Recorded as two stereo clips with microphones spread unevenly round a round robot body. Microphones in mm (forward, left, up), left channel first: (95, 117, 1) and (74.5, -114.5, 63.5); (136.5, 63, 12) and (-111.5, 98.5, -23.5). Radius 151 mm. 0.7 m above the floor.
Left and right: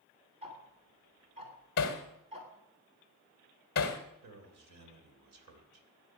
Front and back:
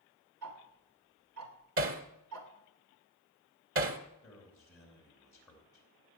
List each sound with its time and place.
0.4 s ticking: 170° right, 2.5 m
1.8 s hammering: 140° left, 1.5 m
4.2 s a man speaking: 90° right, 3 m